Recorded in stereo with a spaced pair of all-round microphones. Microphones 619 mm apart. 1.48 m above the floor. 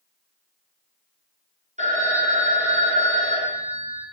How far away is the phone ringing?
About 0.7 m.